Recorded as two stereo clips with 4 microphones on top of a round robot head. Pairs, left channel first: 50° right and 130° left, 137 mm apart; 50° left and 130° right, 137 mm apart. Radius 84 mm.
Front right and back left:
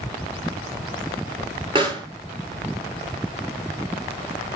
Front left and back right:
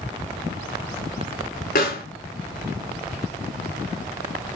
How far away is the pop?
About 6 m.